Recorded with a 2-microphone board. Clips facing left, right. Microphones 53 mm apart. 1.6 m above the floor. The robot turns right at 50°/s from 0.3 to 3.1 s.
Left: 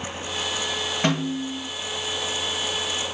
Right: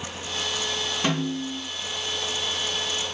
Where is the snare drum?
45° left (ahead or behind), 3 m; by 1.6 s 20° left (ahead or behind), 3 m.